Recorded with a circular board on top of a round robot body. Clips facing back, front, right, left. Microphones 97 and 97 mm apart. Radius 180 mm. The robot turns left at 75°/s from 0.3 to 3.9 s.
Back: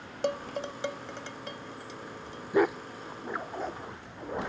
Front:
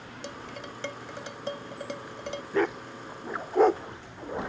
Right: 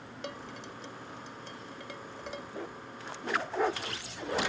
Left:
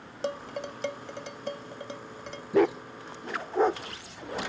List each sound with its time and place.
0.2 s dishes clattering: 145° left; by 2.4 s 15° right
2.5 s a dog barking: 105° left; by 3.8 s 10° left